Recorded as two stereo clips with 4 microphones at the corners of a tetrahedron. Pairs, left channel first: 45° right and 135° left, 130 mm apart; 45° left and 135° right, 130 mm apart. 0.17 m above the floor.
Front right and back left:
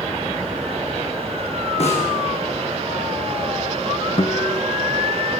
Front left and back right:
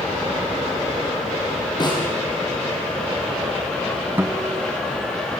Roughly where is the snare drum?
Ahead.